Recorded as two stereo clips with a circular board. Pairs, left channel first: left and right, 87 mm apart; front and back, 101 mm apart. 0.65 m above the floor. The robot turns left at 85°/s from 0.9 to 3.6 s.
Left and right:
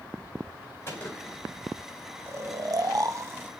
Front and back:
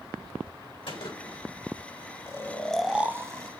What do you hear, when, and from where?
0.9 s a gunshot: 30° left, 4 m; by 1.4 s 15° right, 4 m
2.3 s snoring: 45° right, 0.6 m; by 3.5 s 150° right, 0.6 m